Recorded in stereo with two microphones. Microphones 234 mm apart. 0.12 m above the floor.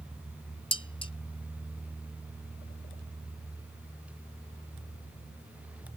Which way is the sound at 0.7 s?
25° left (ahead or behind).